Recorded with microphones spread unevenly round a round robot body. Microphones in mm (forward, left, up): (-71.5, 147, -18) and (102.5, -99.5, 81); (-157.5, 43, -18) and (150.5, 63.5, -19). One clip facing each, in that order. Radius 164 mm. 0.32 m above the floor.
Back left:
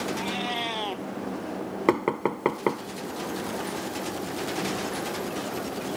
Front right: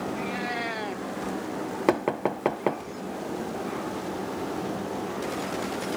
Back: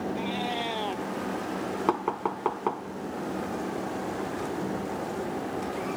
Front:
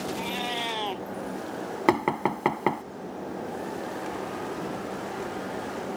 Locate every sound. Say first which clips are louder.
0.1 s a cat meowing: even, back 2 dB; 65° left
1.9 s knocking: back left 1 dB, front 7 dB; 40° left